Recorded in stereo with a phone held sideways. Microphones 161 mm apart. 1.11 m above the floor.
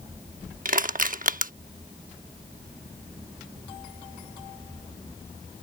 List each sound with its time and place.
0.7 s crushing: 60° right (ahead or behind)